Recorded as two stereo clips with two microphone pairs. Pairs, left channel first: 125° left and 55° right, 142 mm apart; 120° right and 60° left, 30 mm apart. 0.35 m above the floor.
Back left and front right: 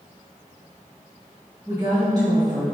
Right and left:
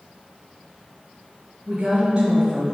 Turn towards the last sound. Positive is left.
turn(degrees=0)